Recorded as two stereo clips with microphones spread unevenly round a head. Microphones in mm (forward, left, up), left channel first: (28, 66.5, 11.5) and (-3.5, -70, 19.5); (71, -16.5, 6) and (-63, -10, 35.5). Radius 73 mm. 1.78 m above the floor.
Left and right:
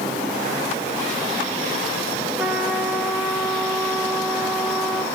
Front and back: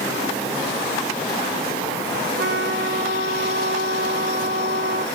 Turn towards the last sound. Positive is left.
turn(degrees=175)